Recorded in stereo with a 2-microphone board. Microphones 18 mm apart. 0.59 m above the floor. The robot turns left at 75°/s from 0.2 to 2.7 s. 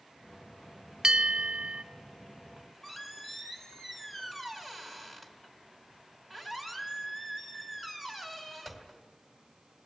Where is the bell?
50° right, 0.7 m; by 1.8 s 110° right, 0.7 m.